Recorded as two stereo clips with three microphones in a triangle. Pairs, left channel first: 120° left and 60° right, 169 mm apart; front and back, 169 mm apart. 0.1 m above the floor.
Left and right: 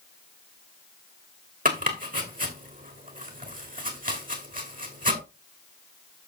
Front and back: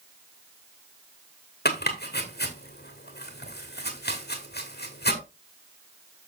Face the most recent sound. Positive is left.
turn(degrees=-20)